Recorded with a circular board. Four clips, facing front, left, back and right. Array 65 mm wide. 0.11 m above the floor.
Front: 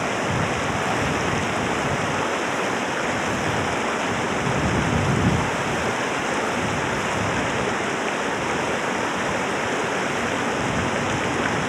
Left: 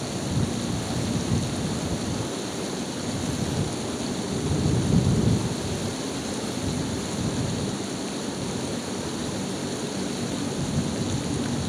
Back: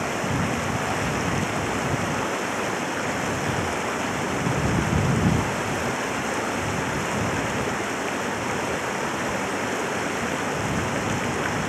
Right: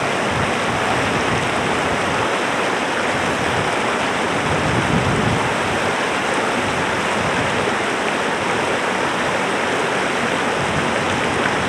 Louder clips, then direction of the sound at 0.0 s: Right 10 dB, front 2 dB; 80° right.